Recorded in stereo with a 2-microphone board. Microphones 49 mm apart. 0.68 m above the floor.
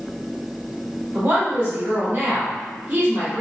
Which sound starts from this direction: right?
A woman speaking, at 1.1 s.